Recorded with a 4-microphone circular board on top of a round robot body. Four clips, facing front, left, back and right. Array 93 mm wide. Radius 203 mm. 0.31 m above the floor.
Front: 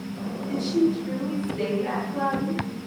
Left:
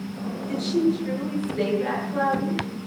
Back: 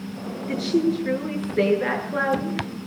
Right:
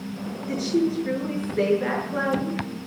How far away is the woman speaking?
About 8 m.